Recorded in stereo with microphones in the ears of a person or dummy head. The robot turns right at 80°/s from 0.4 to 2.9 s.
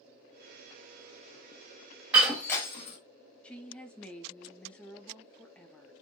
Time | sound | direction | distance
2.1 | breaking glass | 10° right (ahead or behind) | 1.3 m
3.4 | a woman speaking | 10° left (ahead or behind) | 0.6 m